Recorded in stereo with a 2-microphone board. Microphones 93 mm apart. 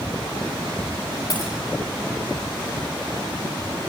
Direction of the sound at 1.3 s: 55° left (ahead or behind).